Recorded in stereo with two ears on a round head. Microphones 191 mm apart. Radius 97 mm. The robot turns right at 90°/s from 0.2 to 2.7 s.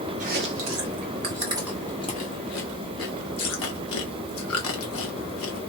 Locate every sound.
0.2 s chewing: 35° right (ahead or behind), 1.0 m; by 5.7 s 70° left (ahead or behind), 1.0 m